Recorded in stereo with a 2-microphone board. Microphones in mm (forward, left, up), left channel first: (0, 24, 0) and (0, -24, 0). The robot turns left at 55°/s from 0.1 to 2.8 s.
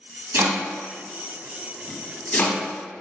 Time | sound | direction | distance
0.3 | chopping | 55° right (ahead or behind) | 0.7 m